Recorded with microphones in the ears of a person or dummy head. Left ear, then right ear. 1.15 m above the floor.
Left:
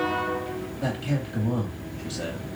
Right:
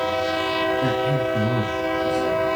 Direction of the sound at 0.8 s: 25° left (ahead or behind).